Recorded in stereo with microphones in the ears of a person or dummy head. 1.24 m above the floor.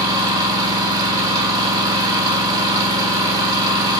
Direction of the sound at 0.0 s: 20° right (ahead or behind).